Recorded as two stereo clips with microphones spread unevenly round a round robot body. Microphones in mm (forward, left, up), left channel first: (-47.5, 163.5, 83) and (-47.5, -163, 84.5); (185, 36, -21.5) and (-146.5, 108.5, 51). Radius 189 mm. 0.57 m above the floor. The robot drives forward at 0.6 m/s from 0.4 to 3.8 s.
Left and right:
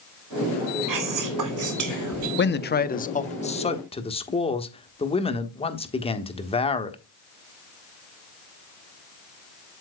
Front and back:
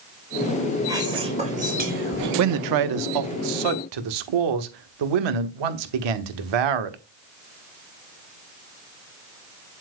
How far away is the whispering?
About 2 m.